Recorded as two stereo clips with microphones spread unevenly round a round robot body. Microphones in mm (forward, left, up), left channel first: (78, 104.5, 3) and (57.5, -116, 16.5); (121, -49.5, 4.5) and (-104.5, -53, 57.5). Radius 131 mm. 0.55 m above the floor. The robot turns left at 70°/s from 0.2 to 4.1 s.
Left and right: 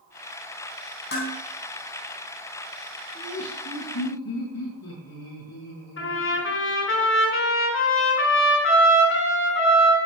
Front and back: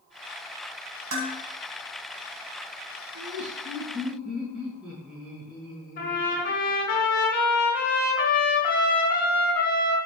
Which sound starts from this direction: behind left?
Dishes clattering, at 1.1 s.